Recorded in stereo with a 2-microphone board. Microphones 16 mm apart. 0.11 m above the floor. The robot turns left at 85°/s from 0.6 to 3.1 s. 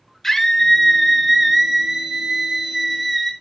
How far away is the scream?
About 1.2 m.